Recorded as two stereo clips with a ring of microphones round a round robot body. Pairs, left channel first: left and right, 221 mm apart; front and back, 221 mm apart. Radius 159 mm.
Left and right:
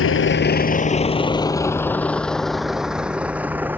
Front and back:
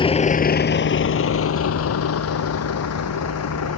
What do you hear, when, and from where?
0.0 s a vehicle: 65° left; by 3.8 s 10° right